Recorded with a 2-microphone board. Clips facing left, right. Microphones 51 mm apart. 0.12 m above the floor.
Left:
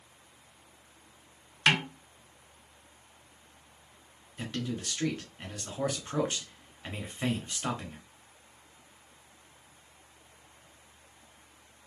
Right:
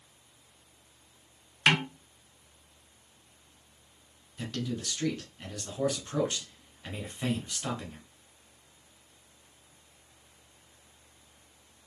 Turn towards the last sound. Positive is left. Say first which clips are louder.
# even
turn(degrees=25)  # may be behind; listen again after turning